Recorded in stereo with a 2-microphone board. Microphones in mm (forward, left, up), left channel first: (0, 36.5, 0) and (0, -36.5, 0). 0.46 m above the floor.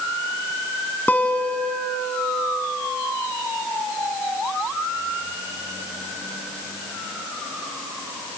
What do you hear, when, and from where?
1.1 s a guitar: 20° left (ahead or behind), 2.5 m